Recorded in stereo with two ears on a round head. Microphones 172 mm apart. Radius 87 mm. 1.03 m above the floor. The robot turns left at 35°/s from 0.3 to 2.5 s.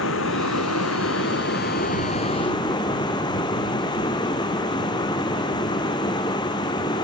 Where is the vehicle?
100° left; by 7.0 s 25° left.